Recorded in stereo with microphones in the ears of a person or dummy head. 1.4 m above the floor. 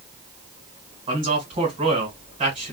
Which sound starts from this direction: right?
A man speaking, at 1.1 s.